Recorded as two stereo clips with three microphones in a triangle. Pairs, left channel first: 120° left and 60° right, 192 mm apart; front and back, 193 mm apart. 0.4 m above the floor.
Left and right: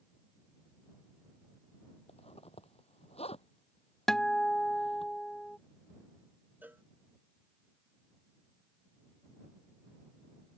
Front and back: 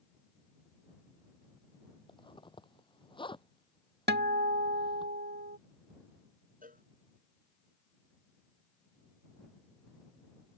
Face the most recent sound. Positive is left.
turn(degrees=-140)